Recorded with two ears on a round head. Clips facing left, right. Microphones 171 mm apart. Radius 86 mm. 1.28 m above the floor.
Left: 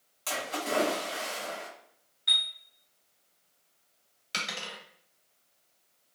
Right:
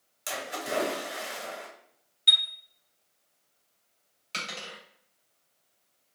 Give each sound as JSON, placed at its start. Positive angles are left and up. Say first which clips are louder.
{"t": 0.3, "sound": "a splash", "louder": "left 1 dB", "side_deg": -15, "distance_m": 1.9}
{"t": 2.3, "sound": "a chime", "louder": "right 3 dB", "side_deg": -40, "distance_m": 0.6}
{"t": 4.3, "sound": "a dropped coin", "louder": "left 1 dB", "side_deg": 15, "distance_m": 1.6}